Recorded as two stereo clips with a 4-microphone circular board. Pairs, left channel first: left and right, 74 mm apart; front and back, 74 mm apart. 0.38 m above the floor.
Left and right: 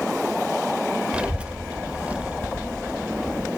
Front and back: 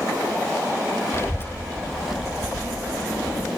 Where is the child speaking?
20° right, 1.0 m; by 3.5 s 170° right, 1.3 m.